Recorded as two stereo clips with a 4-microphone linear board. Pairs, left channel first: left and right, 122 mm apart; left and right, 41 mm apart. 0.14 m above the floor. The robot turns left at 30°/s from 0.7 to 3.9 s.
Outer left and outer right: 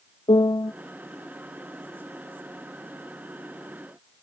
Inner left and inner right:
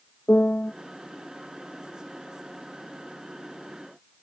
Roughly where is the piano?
Left.